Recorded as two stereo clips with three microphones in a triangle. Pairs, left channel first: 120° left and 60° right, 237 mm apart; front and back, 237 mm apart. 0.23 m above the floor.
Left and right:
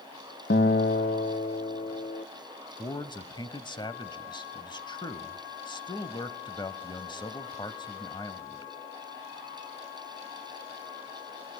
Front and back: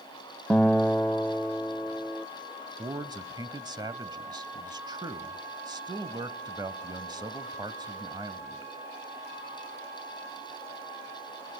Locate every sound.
0.5 s a guitar: 85° left, 2 m
2.8 s a man speaking: 145° left, 1.0 m